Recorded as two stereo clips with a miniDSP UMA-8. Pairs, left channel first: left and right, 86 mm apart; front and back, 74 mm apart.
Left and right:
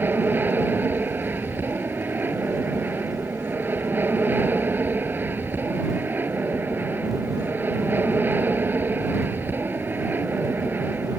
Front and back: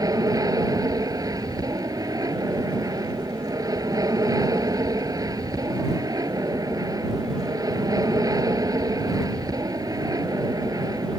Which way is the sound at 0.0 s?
155° right.